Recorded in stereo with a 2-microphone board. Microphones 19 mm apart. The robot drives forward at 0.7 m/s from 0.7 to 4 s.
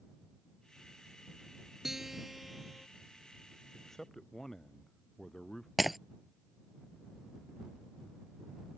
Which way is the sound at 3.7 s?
20° left (ahead or behind).